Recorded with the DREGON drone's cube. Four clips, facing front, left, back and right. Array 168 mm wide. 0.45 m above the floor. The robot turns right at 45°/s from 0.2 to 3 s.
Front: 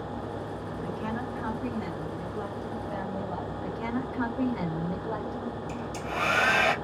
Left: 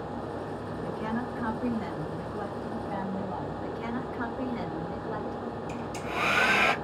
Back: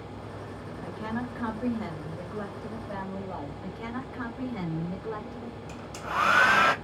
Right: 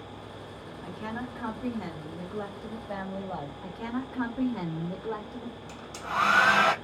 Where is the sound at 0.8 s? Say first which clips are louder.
Left 3 dB, even; 155° left, 1.4 m; by 3.5 s 105° right, 1.4 m.